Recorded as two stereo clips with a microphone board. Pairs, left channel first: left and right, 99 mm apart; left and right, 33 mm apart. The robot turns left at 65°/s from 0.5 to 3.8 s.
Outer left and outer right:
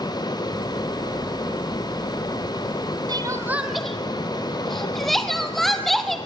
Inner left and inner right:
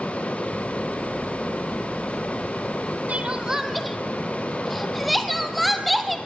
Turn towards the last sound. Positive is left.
turn(degrees=0)  # may be behind; listen again after turning